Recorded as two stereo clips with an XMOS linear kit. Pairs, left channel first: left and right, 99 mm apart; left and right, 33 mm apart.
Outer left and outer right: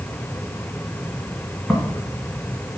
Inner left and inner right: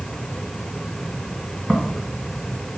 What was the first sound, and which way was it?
Footsteps, 5° left (ahead or behind).